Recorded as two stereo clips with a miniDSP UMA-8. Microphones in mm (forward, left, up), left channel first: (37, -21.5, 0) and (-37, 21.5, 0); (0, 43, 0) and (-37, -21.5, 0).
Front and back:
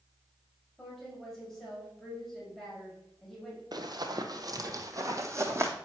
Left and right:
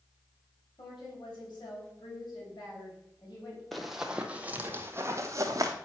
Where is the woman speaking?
55° left, 4 m.